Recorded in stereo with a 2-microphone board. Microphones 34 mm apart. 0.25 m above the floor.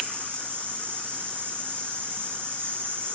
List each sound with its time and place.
0.0 s an insect: 80° right, 6.5 m